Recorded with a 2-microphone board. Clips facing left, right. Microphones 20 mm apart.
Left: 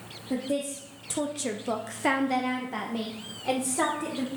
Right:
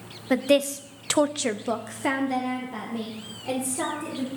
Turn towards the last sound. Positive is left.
turn(degrees=35)  # may be behind; listen again after turning